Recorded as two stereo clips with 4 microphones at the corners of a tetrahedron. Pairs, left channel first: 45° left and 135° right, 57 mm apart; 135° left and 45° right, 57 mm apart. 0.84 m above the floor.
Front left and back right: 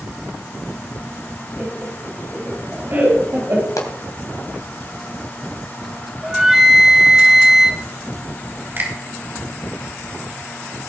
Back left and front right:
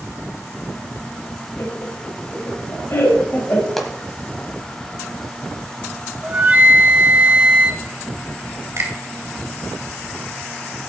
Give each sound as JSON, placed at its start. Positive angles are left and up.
{"t": 1.6, "sound": "laughter", "azimuth_deg": 165, "distance_m": 5.0}
{"t": 3.8, "sound": "a pop", "azimuth_deg": 50, "distance_m": 2.0}
{"t": 6.2, "sound": "a flute", "azimuth_deg": -65, "distance_m": 1.0}
{"t": 8.8, "sound": "a finger snap", "azimuth_deg": -85, "distance_m": 3.5}